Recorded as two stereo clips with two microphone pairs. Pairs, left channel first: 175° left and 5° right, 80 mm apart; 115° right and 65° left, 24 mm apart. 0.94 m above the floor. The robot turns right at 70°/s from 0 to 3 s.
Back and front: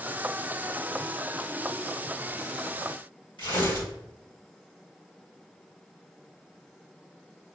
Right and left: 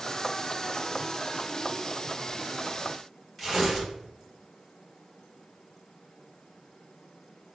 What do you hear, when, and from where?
3.4 s tearing paper: 160° left, 1.4 m